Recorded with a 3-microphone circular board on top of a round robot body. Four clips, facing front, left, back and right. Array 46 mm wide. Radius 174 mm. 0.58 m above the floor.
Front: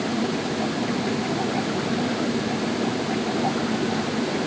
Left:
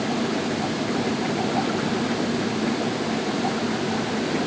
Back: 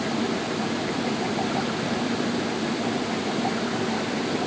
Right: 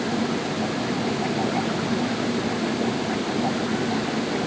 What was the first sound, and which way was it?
Only background noise.